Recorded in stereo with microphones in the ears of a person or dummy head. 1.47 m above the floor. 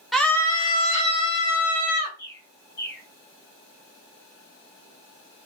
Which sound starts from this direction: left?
A bird, at 2.2 s.